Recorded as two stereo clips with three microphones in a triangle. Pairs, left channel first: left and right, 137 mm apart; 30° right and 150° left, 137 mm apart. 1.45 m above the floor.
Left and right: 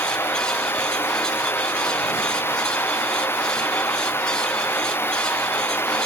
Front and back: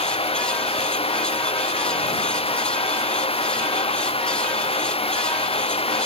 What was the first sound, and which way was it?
Running water, 15° left.